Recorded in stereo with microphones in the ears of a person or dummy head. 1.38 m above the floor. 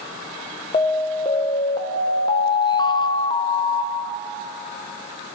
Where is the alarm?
20° left (ahead or behind), 1.3 m.